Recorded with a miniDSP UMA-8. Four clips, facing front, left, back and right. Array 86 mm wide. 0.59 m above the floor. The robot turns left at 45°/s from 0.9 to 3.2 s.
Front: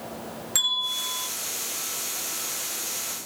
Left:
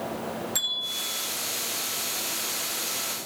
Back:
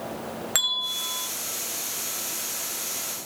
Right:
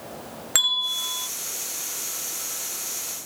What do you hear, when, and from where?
0.6 s a bell: 125° right, 1.3 m; by 1.3 s 145° right, 1.3 m